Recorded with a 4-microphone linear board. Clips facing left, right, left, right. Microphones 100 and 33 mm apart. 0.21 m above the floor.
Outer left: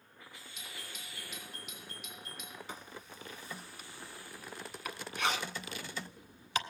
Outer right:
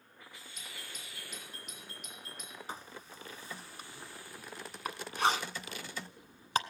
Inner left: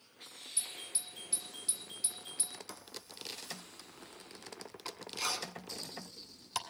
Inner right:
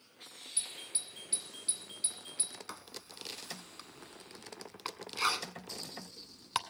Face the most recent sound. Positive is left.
turn(degrees=-40)  # may be behind; listen again after turning